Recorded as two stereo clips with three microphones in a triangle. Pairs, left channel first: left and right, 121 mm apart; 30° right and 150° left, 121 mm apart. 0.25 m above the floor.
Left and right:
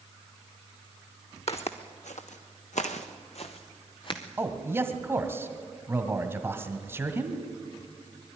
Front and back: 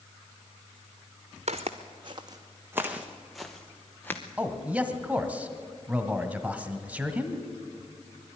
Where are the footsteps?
120° left, 1.5 m; by 4.2 s 45° left, 1.9 m.